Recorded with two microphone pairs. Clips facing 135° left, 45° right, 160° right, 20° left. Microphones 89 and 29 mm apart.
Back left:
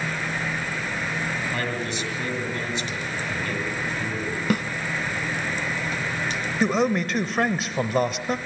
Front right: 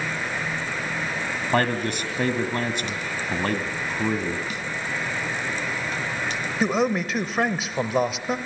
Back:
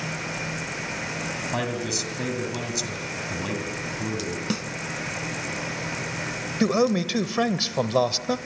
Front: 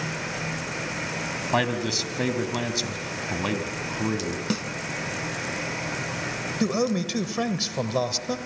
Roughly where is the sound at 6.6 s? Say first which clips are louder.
Back left 1 dB, back 4 dB; behind right.